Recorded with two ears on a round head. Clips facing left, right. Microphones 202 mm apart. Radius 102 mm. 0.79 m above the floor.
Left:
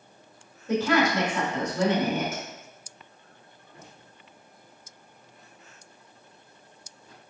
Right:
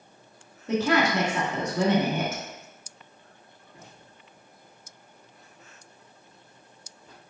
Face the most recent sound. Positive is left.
turn(degrees=-50)  # may be behind; listen again after turning